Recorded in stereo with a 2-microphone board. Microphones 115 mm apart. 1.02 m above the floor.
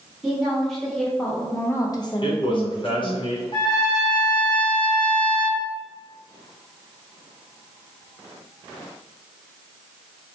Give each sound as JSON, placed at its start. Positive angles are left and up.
{"t": 0.2, "sound": "a woman speaking", "side_deg": -5, "distance_m": 1.4}
{"t": 2.2, "sound": "a man speaking", "side_deg": 50, "distance_m": 0.7}
{"t": 3.5, "sound": "a trumpet", "side_deg": 45, "distance_m": 1.3}